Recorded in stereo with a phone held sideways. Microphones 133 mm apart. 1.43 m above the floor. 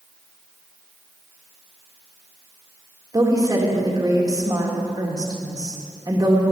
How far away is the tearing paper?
No tearing paper in this recording.